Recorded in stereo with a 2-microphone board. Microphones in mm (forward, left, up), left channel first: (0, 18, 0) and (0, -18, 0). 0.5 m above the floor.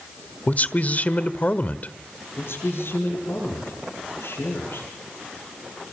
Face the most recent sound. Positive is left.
turn(degrees=75)  # may be behind; listen again after turning